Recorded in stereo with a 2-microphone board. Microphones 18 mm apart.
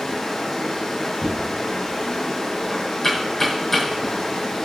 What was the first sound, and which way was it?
Running water, 20° left (ahead or behind).